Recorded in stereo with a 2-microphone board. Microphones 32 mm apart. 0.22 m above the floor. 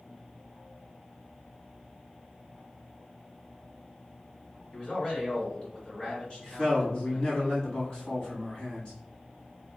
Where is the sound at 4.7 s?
45° left (ahead or behind), 1.7 m.